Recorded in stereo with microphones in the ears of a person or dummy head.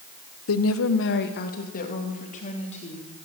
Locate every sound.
0.5 s a woman speaking: 75° left (ahead or behind), 1.2 m; by 3.1 s 35° left (ahead or behind), 4.5 m